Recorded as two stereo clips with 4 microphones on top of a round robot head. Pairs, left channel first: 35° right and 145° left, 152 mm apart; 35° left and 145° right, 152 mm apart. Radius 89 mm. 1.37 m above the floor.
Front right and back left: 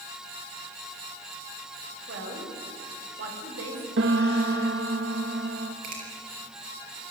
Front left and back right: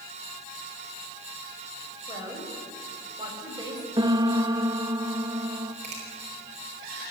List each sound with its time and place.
2.1 s a woman speaking: 150° left, 6 m
4.0 s a piano: 150° left, 1.2 m
5.8 s a finger snap: 170° left, 7 m